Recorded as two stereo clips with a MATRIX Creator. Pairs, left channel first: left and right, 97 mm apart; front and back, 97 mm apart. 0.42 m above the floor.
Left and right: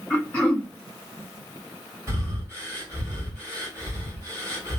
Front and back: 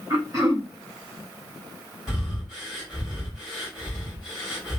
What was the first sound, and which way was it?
Throat clearing, 150° left.